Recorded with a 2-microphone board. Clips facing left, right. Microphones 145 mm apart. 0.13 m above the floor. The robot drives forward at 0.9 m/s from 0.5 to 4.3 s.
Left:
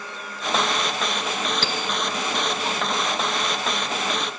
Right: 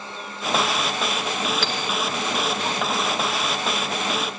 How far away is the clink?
About 1.3 m.